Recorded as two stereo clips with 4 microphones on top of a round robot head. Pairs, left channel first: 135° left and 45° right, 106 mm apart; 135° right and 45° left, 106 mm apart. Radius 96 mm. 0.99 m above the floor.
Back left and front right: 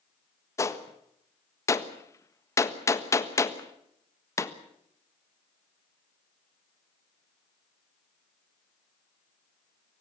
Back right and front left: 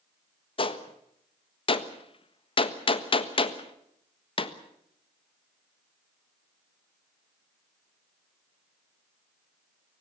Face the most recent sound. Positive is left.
turn(degrees=-165)